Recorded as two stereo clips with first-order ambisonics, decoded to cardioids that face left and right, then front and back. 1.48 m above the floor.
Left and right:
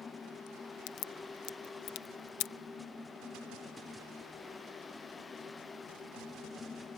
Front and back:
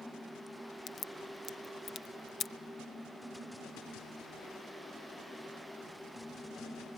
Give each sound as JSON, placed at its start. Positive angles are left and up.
{"t": 0.9, "sound": "a crack", "azimuth_deg": 65}